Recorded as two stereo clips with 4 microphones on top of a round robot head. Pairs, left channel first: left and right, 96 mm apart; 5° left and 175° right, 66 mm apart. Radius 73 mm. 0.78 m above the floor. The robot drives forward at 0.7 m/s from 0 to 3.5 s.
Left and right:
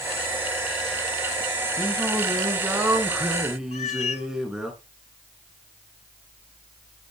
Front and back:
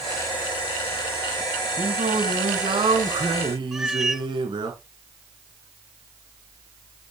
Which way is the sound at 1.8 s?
170° right.